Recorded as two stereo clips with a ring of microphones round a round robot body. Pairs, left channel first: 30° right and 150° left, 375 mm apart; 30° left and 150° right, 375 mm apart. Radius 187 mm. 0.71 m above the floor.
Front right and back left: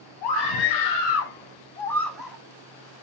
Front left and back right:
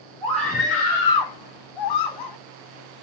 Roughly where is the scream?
Ahead right.